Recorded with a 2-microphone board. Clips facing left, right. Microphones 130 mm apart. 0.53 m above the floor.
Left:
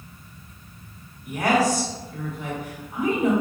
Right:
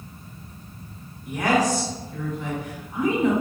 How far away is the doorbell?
No doorbell in this recording.